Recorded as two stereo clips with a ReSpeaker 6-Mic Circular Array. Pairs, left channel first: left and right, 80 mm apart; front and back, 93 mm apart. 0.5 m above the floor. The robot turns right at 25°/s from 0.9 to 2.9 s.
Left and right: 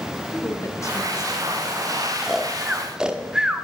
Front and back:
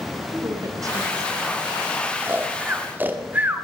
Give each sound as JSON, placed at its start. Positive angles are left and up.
{"t": 0.2, "sound": "a woman speaking", "azimuth_deg": 135, "distance_m": 2.5}
{"t": 2.2, "sound": "snoring", "azimuth_deg": -175, "distance_m": 1.1}